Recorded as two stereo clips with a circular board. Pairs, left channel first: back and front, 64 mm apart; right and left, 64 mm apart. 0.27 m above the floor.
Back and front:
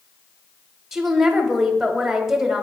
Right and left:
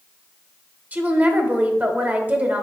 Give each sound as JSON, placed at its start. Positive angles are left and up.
{"t": 0.9, "sound": "a woman speaking", "azimuth_deg": 75, "distance_m": 1.0}